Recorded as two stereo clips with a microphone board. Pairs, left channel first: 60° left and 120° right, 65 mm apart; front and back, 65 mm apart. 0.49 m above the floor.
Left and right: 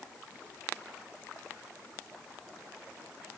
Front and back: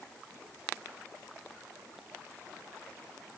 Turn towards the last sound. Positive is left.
No sound to turn to.